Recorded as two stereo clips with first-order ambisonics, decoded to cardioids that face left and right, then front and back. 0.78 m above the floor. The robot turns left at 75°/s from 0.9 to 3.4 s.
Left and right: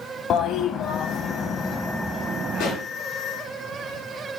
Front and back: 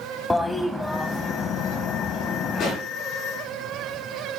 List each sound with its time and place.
0.3 s a toilet flushing: 80° left, 0.7 m; by 2.8 s 60° right, 0.7 m
2.5 s a pop: 55° left, 5.5 m; by 2.9 s 35° left, 5.5 m